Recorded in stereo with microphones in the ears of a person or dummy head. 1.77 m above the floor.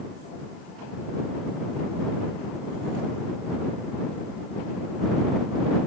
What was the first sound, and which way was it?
Only background noise.